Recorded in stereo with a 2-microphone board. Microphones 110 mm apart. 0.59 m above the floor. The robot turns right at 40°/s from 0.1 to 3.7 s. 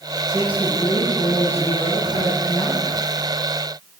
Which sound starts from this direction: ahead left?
A man speaking, at 0.3 s.